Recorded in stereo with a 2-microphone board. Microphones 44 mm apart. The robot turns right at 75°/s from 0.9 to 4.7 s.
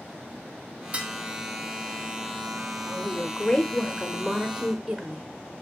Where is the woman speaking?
25° left (ahead or behind), 0.9 m; by 5.2 s 10° right (ahead or behind), 0.9 m.